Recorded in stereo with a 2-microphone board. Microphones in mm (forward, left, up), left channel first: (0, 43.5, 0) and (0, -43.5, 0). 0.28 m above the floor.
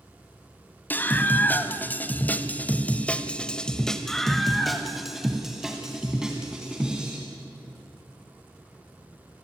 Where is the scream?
20° left (ahead or behind), 2 m; by 7.2 s 10° right (ahead or behind), 3 m.